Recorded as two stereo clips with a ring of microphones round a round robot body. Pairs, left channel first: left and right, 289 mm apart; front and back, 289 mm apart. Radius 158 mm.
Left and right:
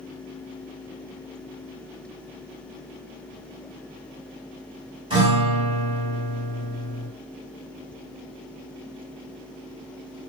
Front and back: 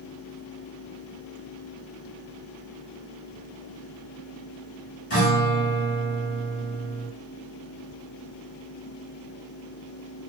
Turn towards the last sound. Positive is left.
turn(degrees=-20)